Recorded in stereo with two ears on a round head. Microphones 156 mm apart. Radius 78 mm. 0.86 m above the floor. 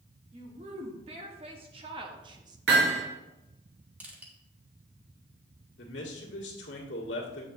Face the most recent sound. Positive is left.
turn(degrees=80)